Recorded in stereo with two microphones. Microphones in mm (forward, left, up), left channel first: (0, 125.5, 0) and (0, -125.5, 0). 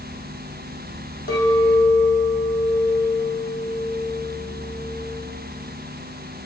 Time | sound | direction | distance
1.3 | a clink | 40° left (ahead or behind) | 4 m